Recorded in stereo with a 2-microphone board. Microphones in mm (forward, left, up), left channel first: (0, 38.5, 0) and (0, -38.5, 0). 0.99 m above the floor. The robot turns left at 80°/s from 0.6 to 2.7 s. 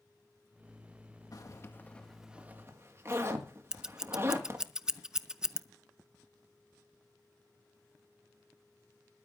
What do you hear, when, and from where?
1.3 s a zipper: 55° left (ahead or behind), 1.7 m; by 4.7 s 40° right (ahead or behind), 1.7 m
3.7 s scissors: 10° right (ahead or behind), 0.6 m